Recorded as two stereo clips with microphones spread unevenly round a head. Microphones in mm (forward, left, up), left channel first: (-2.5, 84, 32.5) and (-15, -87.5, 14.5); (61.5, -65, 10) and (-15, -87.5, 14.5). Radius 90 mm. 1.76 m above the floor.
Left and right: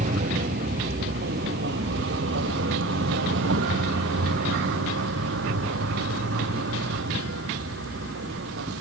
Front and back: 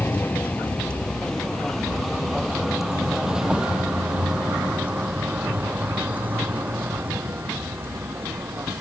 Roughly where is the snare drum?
No snare drum in this recording.